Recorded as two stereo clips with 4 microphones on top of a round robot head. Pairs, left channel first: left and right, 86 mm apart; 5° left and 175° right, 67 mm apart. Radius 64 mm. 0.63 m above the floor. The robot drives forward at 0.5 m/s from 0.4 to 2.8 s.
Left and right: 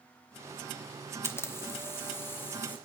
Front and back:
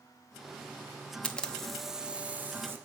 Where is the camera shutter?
60° left, 0.8 m; by 2.8 s 145° left, 0.9 m.